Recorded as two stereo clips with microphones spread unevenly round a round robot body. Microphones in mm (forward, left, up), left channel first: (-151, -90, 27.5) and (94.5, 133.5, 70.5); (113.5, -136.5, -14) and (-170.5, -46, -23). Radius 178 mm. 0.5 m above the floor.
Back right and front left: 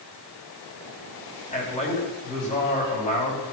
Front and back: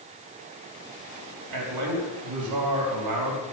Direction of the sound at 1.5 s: 150° left.